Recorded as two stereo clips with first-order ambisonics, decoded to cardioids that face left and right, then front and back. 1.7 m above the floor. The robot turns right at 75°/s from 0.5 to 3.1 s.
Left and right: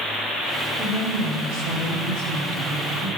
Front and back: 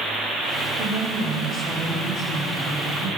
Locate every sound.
0.8 s a woman speaking: 150° right, 4.5 m; by 3.1 s 20° left, 4.5 m